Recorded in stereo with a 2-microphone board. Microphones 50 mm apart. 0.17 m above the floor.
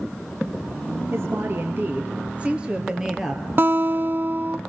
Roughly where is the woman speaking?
Right.